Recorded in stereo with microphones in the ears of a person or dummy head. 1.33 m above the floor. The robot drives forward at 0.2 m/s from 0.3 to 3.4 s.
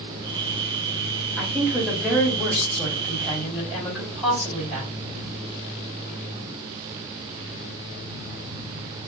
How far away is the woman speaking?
About 2.5 m.